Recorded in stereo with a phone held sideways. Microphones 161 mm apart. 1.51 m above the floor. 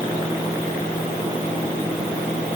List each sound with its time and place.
Only background noise.